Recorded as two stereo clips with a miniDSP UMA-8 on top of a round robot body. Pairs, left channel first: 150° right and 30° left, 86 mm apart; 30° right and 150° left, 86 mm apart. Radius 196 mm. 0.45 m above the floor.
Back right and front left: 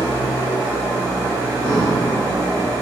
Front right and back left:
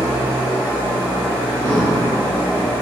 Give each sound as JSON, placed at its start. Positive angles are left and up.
{"t": 0.0, "sound": "an engine running", "azimuth_deg": 85, "distance_m": 0.8}
{"t": 1.6, "sound": "breathing", "azimuth_deg": -30, "distance_m": 0.7}